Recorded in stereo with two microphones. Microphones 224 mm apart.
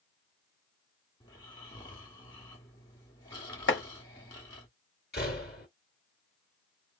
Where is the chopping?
60° left (ahead or behind), 0.8 m.